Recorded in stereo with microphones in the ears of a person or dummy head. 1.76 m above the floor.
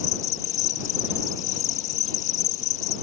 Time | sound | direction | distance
0.0 | an insect | 40° left (ahead or behind) | ?